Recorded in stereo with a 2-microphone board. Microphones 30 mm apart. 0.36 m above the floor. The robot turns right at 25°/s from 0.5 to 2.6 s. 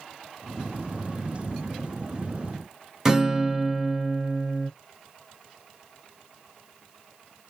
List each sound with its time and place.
3.0 s a guitar: 15° right (ahead or behind), 0.9 m